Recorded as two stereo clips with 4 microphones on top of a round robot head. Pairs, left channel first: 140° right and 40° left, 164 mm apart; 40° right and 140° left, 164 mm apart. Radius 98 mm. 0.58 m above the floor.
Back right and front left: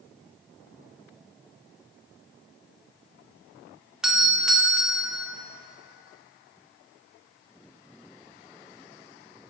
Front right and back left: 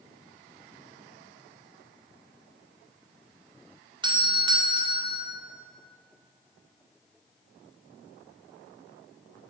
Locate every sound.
4.0 s a doorbell: 125° left, 1.2 m